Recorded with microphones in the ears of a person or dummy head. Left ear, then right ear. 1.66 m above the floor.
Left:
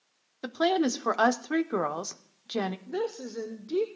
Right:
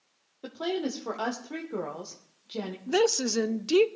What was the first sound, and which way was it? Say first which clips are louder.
A woman speaking: left 6 dB; 60° left (ahead or behind).